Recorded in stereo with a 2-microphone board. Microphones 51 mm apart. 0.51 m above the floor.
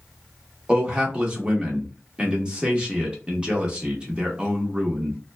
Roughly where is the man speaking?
Centre.